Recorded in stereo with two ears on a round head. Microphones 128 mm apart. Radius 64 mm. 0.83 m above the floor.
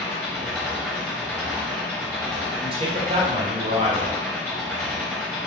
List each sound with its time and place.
0.0 s an engine running: 10° left (ahead or behind), 1.2 m
2.6 s a man speaking: 40° right (ahead or behind), 0.6 m